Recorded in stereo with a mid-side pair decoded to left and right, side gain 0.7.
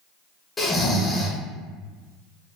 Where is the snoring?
15° left, 0.7 m.